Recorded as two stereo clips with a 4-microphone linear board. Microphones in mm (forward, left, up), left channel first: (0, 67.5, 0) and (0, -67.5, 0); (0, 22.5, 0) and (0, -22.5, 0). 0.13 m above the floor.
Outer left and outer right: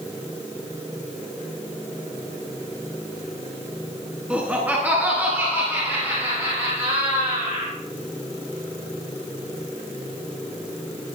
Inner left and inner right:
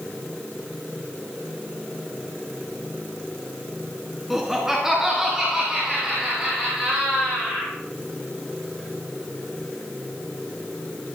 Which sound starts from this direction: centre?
Laughter, at 4.3 s.